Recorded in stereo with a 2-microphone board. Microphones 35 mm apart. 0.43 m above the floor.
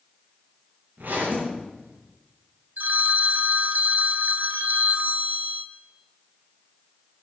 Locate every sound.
1.0 s a zipper: 60° right (ahead or behind), 8 m
2.8 s a phone ringing: 60° right (ahead or behind), 1.2 m